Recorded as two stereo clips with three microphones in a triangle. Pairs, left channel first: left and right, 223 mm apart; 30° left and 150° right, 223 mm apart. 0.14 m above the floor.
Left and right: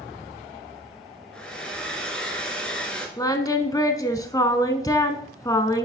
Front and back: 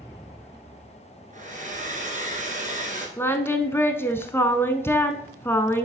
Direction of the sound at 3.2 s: 80° left.